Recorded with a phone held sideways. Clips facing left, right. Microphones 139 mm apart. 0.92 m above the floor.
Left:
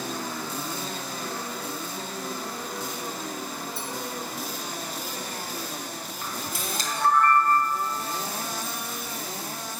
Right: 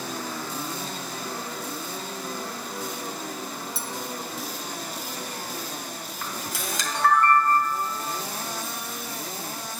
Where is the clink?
80° right, 0.5 m.